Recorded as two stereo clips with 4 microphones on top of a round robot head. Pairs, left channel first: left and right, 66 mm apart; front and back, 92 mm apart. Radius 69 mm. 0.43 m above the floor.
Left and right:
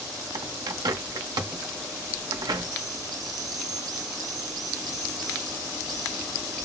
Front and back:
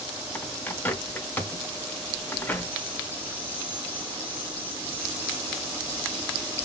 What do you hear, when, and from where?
0.3 s a bird: 70° right, 0.5 m